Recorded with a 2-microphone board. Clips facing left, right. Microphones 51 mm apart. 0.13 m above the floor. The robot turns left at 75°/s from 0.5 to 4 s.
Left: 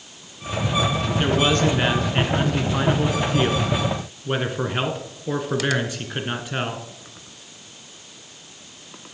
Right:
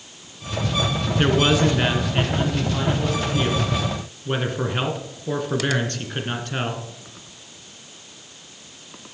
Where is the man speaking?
135° right, 1.6 m; by 6.8 s 15° left, 1.6 m.